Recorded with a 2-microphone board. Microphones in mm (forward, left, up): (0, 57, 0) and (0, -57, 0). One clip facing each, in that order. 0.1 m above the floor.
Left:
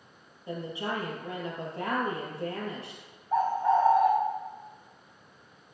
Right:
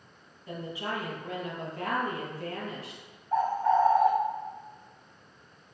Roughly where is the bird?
Centre.